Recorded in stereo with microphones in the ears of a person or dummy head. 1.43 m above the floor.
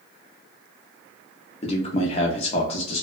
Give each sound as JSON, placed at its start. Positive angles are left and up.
{"t": 1.6, "sound": "a man speaking", "side_deg": 35, "distance_m": 0.6}